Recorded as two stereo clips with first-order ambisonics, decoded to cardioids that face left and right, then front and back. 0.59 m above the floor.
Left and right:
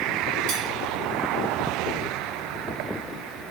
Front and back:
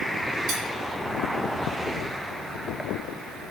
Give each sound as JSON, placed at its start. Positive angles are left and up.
{"t": 0.5, "sound": "cutlery clinking", "azimuth_deg": -130, "distance_m": 1.2}